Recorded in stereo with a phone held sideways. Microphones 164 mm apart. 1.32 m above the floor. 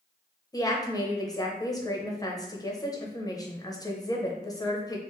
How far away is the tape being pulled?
I don't hear tape being pulled.